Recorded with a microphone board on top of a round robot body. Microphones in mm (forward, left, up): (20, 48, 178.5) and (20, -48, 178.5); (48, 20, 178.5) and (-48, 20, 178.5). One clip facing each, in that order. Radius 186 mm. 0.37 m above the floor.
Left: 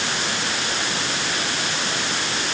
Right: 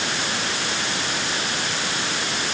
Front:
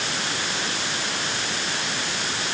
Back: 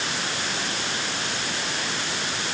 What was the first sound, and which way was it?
Only background noise.